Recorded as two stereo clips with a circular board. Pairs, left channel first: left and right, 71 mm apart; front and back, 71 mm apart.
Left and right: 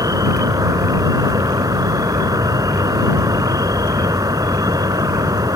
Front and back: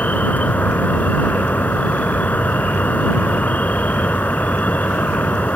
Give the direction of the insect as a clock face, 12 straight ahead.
2 o'clock.